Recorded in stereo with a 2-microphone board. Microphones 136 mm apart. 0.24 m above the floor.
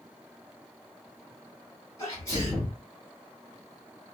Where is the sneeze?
25° left (ahead or behind), 1.7 m.